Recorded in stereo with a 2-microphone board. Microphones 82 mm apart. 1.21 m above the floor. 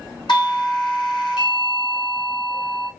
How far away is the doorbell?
About 2.0 m.